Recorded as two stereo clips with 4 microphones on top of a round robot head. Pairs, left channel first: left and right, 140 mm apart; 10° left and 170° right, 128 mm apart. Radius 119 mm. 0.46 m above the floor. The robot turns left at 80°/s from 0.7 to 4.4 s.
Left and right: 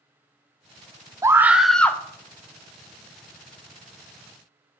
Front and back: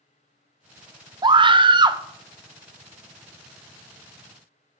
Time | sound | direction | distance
1.2 | a scream | 140° right | 0.8 m